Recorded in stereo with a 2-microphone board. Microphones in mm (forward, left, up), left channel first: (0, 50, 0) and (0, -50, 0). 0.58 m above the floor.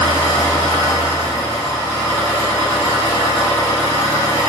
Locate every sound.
0.0 s an engine running: 45° left (ahead or behind), 1.3 m